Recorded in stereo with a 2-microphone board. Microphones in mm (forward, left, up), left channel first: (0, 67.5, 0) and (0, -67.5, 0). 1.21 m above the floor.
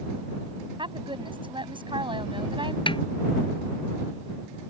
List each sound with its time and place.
0.8 s a woman speaking: 40° right (ahead or behind)
2.9 s a snare drum: 40° left (ahead or behind)